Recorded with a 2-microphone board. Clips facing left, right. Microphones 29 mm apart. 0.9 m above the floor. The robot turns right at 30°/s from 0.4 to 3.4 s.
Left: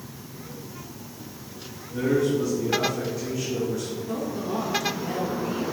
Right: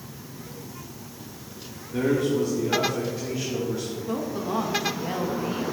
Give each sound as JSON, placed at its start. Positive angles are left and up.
{"t": 1.9, "sound": "a man speaking", "azimuth_deg": -60, "distance_m": 1.9}
{"t": 4.1, "sound": "a woman speaking", "side_deg": -25, "distance_m": 1.2}